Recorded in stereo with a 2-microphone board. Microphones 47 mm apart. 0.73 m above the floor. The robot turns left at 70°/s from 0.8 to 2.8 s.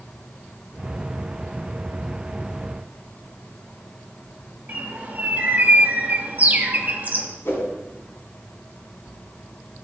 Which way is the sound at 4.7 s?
35° right (ahead or behind).